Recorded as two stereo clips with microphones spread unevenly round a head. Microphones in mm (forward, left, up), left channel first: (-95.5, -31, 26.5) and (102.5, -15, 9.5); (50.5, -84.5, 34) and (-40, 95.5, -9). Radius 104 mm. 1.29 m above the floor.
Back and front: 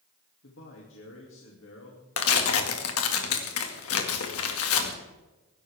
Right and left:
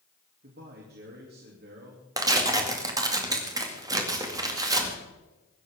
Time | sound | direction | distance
0.4 | a man speaking | 155° left | 2.5 m
2.2 | tearing paper | 170° right | 2 m